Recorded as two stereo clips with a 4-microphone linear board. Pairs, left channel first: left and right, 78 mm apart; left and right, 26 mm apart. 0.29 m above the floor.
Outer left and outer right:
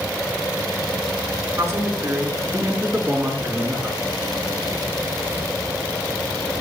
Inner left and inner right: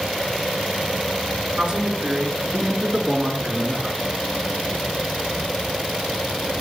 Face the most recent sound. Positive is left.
turn(degrees=-15)  # may be behind; listen again after turning